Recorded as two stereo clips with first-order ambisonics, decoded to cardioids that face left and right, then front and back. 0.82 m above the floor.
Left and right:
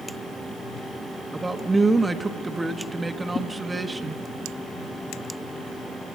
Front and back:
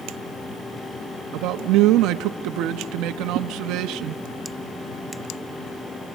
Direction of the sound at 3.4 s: 155° left.